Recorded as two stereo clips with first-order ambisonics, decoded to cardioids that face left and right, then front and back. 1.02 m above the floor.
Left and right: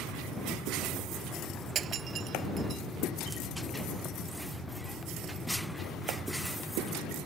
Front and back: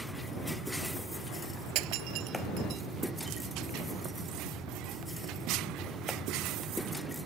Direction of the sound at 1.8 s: 150° right.